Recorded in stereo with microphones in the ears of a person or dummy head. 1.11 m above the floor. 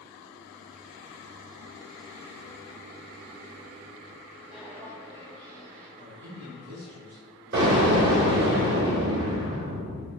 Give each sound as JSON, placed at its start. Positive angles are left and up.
{"t": 4.5, "sound": "footsteps", "side_deg": -10, "distance_m": 1.5}
{"t": 6.0, "sound": "a man speaking", "side_deg": -70, "distance_m": 1.6}
{"t": 7.5, "sound": "an explosion", "side_deg": -70, "distance_m": 1.7}